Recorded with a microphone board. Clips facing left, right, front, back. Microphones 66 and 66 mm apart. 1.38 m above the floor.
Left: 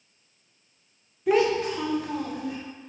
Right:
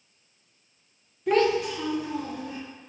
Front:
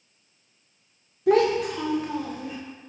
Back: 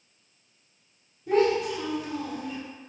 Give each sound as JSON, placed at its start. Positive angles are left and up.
{"t": 1.3, "sound": "a child speaking", "azimuth_deg": 0, "distance_m": 0.5}